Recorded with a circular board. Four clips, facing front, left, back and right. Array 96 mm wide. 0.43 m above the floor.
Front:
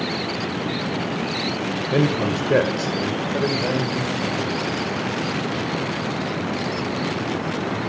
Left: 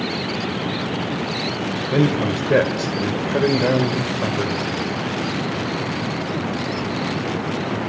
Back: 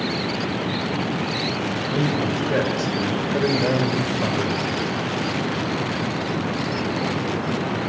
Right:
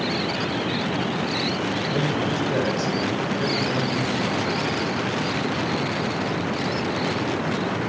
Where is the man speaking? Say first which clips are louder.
Left 8 dB, front 3 dB; 35° left, 1.7 m; by 4.7 s 130° left, 2.0 m.